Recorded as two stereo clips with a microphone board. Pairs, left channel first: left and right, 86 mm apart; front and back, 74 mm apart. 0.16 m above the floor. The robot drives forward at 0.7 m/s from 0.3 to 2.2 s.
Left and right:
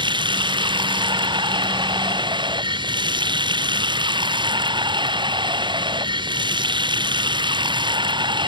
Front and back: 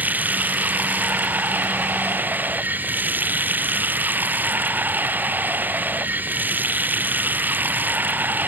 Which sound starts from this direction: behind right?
Running water, at 0.0 s.